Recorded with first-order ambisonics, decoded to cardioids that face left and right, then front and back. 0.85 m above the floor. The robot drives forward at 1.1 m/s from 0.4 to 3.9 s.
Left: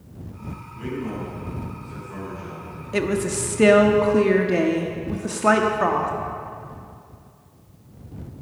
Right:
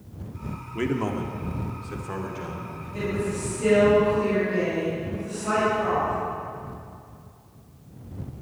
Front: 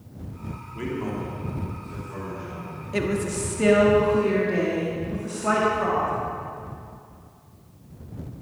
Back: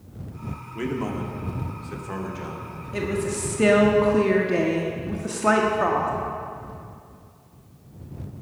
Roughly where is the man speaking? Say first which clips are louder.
Right 4 dB, back 2 dB; right.